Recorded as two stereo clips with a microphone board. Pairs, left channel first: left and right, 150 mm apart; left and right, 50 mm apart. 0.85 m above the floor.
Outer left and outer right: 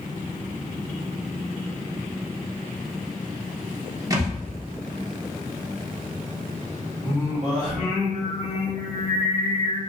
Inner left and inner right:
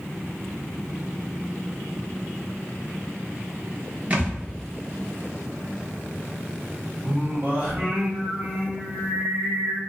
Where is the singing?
45° right (ahead or behind), 1.3 m.